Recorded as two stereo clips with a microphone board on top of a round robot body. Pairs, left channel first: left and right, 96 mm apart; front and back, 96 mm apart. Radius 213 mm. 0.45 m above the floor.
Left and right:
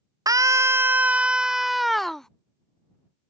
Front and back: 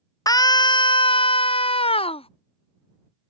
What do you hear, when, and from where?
0.3 s a scream: 45° right; by 2.3 s 5° left